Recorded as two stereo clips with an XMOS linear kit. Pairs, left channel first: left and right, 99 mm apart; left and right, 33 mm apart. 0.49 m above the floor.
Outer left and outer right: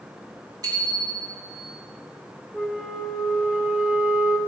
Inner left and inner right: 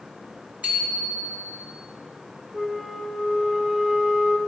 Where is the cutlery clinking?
No cutlery clinking in this recording.